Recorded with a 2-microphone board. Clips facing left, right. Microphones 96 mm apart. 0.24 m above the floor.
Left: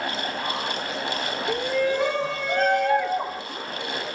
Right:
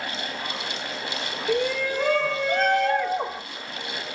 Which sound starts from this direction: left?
A shout, at 1.5 s.